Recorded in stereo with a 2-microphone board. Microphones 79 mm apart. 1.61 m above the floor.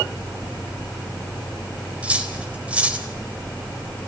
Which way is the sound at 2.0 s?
15° right (ahead or behind).